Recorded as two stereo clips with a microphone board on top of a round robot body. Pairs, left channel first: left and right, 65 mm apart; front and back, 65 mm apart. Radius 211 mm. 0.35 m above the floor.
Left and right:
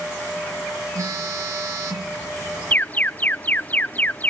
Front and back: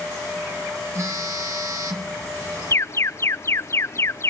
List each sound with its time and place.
0.9 s a phone buzzing: 135° right, 3.5 m
2.7 s an alarm: 30° left, 0.7 m